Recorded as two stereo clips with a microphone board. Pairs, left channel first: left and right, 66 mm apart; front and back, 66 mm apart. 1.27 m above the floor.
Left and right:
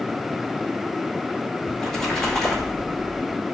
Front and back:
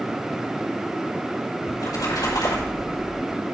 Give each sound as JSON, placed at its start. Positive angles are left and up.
{"t": 1.7, "sound": "a splash", "azimuth_deg": 5, "distance_m": 4.0}